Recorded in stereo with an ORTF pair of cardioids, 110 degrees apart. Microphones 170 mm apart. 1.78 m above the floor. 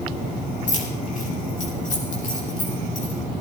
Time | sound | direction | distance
0.7 | keys jangling | 50° left | 4.5 m